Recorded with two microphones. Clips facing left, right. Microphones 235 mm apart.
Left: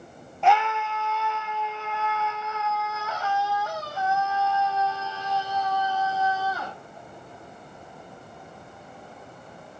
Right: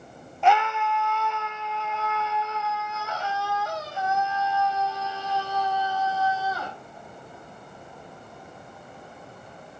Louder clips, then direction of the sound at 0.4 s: Even; centre (ahead or behind).